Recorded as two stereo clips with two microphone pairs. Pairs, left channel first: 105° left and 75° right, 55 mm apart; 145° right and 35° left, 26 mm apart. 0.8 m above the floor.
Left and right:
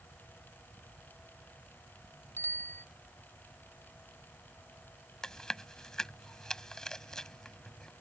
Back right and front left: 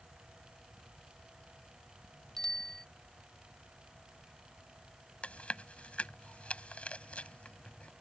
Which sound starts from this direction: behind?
Chewing, at 5.2 s.